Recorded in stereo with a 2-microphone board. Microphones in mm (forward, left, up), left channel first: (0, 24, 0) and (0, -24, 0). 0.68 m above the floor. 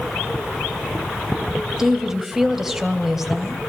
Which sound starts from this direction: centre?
A woman speaking, at 1.8 s.